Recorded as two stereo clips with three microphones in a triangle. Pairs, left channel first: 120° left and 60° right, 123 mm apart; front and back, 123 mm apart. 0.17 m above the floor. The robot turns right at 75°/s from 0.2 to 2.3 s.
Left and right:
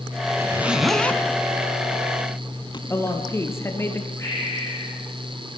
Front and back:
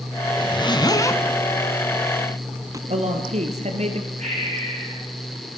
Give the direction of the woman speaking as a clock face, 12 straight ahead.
6 o'clock.